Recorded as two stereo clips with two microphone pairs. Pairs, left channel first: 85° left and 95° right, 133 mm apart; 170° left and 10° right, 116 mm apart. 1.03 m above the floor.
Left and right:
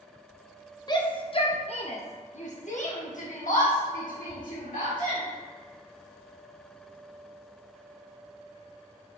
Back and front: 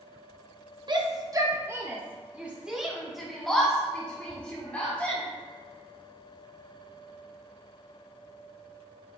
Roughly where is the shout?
Ahead left.